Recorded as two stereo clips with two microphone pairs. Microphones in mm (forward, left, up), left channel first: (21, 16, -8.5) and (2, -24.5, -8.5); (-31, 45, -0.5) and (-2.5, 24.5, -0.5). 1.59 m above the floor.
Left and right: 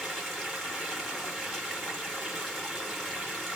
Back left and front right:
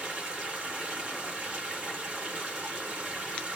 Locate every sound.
0.0 s running water: 15° right, 1.3 m